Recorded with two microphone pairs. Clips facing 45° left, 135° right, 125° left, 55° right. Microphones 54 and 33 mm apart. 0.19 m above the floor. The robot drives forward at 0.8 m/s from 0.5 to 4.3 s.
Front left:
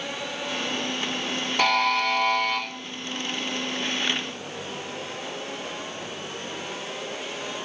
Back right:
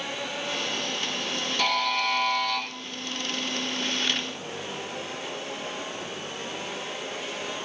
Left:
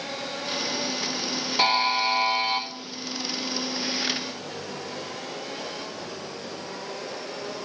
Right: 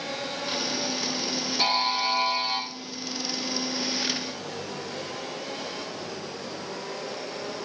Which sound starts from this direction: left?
A buzzer, at 1.6 s.